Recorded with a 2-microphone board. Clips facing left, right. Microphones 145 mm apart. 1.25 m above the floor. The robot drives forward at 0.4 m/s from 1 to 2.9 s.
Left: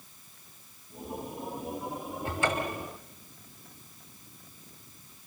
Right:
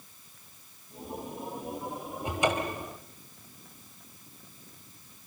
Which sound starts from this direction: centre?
A cupboard door, at 2.2 s.